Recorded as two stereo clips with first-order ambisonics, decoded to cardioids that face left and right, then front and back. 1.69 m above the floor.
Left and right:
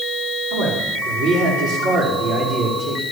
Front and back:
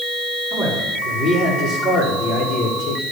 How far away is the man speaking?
About 5 m.